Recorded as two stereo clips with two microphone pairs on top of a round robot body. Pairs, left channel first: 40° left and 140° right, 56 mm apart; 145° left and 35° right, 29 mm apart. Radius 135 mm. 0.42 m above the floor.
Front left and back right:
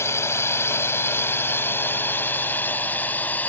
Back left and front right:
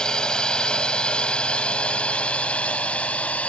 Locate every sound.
0.0 s a drone: 80° left; by 3.5 s 100° left